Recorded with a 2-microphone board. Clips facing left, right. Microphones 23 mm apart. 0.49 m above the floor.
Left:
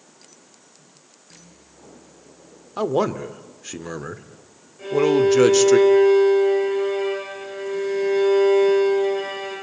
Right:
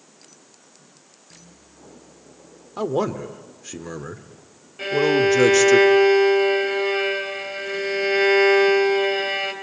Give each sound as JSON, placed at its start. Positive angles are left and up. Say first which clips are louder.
{"t": 2.8, "sound": "a man speaking", "louder": "left 2 dB", "side_deg": 10, "distance_m": 1.4}
{"t": 4.8, "sound": "a violin", "louder": "left 1 dB", "side_deg": -85, "distance_m": 4.5}